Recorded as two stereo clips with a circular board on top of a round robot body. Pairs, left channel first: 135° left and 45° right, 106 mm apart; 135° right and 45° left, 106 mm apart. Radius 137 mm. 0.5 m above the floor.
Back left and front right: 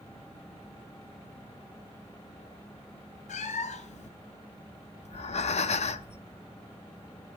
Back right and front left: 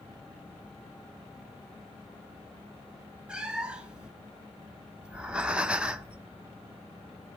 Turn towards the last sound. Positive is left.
turn(degrees=125)